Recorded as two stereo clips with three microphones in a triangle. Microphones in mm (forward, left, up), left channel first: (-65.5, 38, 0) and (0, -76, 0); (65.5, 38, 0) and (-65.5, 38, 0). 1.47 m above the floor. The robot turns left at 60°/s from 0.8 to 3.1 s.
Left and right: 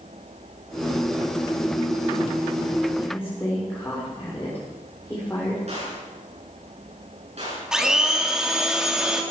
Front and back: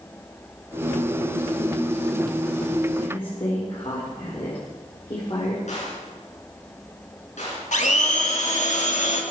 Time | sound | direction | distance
3.0 | a woman speaking | 55° left | 5.5 m
5.7 | a gunshot | 25° right | 8 m
7.7 | a blender | 25° left | 2.5 m